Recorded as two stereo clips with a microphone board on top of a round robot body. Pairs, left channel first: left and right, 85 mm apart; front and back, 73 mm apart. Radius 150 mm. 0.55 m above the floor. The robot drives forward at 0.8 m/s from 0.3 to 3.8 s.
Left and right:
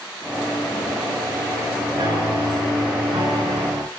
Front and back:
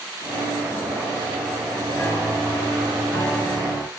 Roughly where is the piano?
Ahead right.